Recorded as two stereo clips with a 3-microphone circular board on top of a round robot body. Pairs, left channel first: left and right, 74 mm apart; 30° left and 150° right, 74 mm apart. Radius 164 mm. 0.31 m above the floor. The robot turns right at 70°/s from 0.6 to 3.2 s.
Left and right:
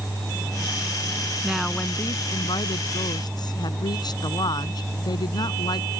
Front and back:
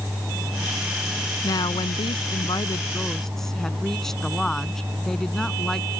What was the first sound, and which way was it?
A woman speaking, 10° right.